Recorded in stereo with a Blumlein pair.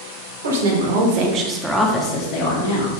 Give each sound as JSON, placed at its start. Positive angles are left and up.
{"t": 0.4, "sound": "a woman speaking", "azimuth_deg": -65, "distance_m": 1.1}